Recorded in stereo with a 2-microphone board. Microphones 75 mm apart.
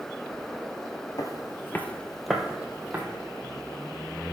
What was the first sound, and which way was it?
Footsteps, 50° left (ahead or behind).